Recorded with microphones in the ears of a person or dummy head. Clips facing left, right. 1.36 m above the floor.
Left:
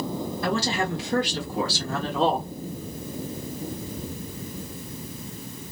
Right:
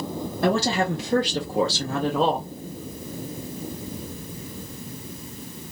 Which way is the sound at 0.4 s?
45° right (ahead or behind).